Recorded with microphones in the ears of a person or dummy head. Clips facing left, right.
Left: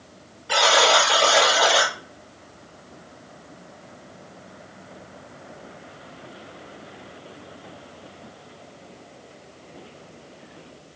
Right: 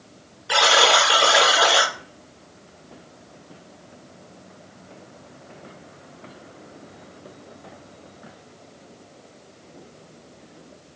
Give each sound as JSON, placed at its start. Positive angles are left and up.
{"t": 0.5, "sound": "a buzzer", "side_deg": -10, "distance_m": 1.3}